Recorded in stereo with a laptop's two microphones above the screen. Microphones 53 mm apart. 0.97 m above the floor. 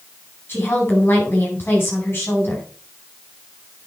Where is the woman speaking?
40° left (ahead or behind), 4.5 m.